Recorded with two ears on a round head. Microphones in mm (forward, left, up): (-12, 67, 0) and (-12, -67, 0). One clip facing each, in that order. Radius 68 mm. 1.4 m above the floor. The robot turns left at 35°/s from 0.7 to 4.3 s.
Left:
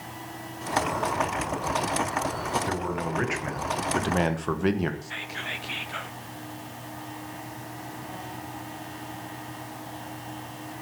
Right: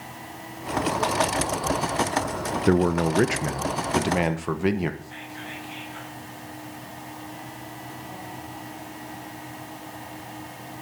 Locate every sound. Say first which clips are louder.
2.7 s a man speaking: right 9 dB; 120° right, 1.1 m; by 4.9 s 175° right, 1.1 m
5.0 s whispering: even; 65° left (ahead or behind), 1.4 m